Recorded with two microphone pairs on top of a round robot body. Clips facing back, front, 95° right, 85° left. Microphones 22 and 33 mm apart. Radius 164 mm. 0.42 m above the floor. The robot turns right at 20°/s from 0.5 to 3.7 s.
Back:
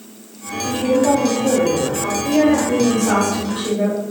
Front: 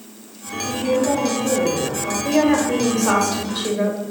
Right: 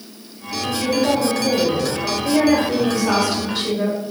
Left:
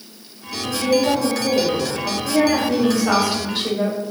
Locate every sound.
0.6 s a woman speaking: straight behind, 1.6 m; by 2.1 s 150° right, 1.6 m
2.2 s a woman speaking: 10° right, 1.5 m; by 4.0 s 15° left, 1.5 m